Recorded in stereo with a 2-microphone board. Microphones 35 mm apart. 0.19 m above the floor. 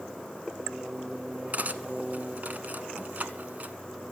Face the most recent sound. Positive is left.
turn(degrees=-50)  # may be behind; listen again after turning